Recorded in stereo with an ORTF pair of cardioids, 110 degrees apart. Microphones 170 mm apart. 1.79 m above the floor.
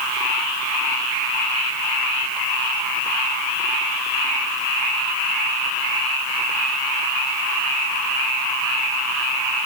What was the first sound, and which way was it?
Only background noise.